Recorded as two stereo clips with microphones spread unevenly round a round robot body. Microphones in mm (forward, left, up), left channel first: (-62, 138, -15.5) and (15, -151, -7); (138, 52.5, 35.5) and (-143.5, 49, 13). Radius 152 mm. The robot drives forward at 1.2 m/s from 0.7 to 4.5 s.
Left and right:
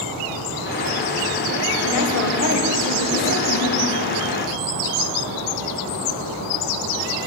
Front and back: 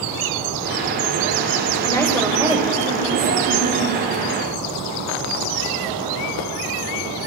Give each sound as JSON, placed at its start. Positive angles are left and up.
{"t": 1.8, "sound": "a woman speaking", "azimuth_deg": 75, "distance_m": 1.7}